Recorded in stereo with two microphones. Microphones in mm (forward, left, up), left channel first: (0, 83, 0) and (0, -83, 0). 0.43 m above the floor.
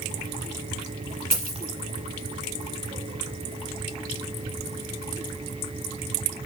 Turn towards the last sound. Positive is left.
turn(degrees=-60)  # may be behind; listen again after turning